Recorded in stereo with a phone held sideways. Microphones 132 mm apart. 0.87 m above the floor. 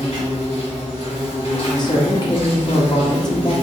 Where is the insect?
50° left (ahead or behind), 2.5 m.